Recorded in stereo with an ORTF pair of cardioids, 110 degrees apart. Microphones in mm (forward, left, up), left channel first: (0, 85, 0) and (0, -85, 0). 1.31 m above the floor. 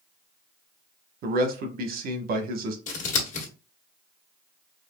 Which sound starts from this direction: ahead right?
A man speaking, at 1.2 s.